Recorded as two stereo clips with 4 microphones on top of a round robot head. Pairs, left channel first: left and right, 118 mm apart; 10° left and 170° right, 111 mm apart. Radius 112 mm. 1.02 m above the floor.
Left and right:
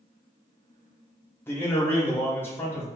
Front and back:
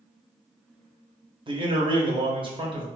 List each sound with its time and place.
1.5 s a man speaking: 160° left, 1.1 m